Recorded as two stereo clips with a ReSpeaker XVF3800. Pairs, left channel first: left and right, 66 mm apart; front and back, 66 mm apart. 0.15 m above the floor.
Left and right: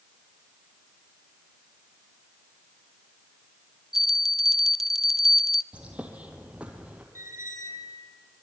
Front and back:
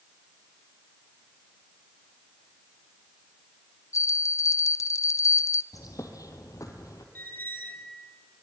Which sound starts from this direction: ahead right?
A squeak, at 7.2 s.